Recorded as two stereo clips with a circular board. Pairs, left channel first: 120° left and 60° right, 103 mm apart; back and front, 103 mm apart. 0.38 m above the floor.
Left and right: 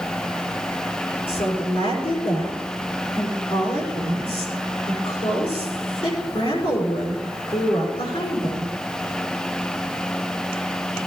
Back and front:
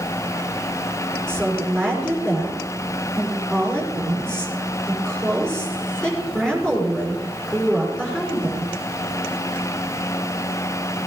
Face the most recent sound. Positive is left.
turn(degrees=100)